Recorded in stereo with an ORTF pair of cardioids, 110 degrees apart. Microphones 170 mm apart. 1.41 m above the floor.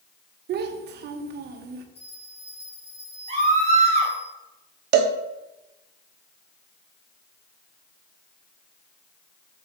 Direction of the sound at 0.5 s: 70° right.